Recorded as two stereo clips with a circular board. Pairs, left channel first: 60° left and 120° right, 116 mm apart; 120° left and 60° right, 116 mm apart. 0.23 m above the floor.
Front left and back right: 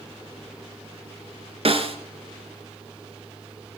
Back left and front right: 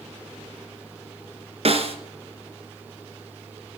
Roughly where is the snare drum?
Right.